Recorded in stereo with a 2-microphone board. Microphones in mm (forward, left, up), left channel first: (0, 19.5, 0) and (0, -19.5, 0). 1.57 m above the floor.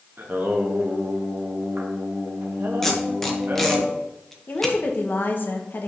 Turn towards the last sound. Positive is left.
turn(degrees=60)  # may be behind; listen again after turning